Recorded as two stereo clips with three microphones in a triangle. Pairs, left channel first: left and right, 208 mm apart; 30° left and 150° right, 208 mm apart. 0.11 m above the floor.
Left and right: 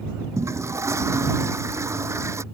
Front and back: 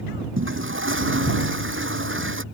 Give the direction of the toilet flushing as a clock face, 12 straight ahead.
6 o'clock.